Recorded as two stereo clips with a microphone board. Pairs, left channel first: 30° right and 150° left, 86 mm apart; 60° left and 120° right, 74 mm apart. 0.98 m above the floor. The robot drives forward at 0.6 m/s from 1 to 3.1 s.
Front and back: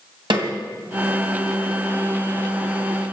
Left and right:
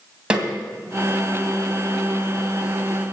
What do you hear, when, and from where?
0.3 s a snare drum: 165° left, 2.5 m